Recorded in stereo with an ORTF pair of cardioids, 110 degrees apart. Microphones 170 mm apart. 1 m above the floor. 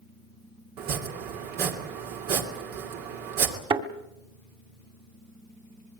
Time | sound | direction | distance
0.8 | chopping | 65° right | 2.5 m
3.7 | a thud | 30° right | 2 m